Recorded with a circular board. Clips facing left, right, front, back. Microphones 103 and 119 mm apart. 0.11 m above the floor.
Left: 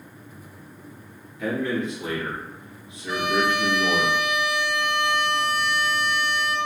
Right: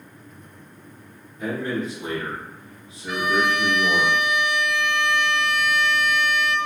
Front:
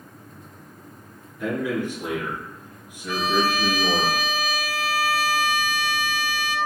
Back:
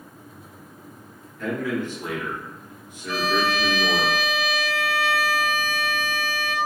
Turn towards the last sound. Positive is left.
turn(degrees=135)